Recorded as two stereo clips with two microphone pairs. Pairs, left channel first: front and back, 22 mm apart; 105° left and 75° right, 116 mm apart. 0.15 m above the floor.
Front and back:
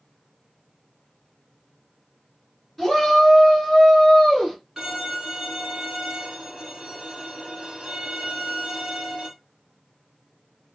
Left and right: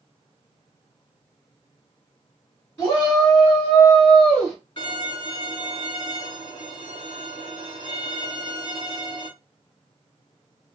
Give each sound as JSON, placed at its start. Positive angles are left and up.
{"t": 2.8, "sound": "a shout", "azimuth_deg": 70, "distance_m": 2.0}
{"t": 4.8, "sound": "a violin", "azimuth_deg": 120, "distance_m": 2.0}